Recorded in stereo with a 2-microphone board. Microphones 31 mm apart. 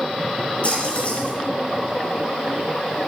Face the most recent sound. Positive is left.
turn(degrees=45)  # may be behind; listen again after turning